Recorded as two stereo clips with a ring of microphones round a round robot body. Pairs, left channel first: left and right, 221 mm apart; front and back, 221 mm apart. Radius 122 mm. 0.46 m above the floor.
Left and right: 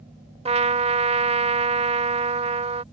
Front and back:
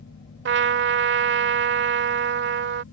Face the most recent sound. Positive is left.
turn(degrees=-150)